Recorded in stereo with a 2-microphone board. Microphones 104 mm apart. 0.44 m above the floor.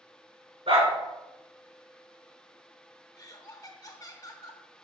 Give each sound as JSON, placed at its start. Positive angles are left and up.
{"t": 0.7, "sound": "a dog barking", "side_deg": -75, "distance_m": 2.0}
{"t": 3.2, "sound": "laughter", "side_deg": 40, "distance_m": 1.0}